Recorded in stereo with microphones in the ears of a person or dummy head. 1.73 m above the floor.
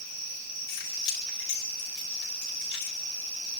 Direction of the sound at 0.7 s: 70° left (ahead or behind).